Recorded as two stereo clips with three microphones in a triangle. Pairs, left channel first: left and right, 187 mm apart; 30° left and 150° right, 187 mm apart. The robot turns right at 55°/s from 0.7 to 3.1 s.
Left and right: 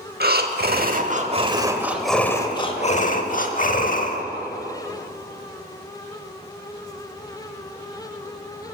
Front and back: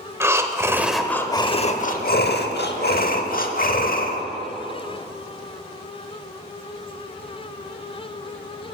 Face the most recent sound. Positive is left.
turn(degrees=55)